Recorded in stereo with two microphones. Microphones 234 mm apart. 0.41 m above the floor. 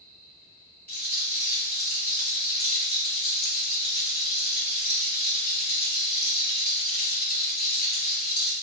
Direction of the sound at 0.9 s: 45° left (ahead or behind).